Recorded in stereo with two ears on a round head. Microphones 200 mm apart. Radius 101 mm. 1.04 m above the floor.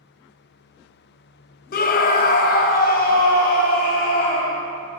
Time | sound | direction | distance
1.7 | a scream | 40° left (ahead or behind) | 0.6 m